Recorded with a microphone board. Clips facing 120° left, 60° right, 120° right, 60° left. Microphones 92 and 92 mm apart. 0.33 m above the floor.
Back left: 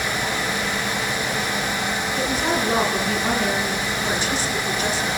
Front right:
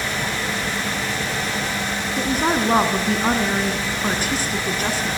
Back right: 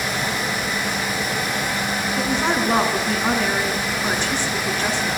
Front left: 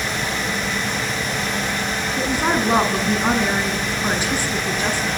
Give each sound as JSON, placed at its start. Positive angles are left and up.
{"t": 2.2, "sound": "a woman speaking", "azimuth_deg": -20, "distance_m": 3.5}